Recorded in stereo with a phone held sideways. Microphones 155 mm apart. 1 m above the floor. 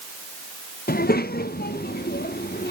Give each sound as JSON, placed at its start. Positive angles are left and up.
{"t": 0.9, "sound": "a child speaking", "side_deg": 75, "distance_m": 0.6}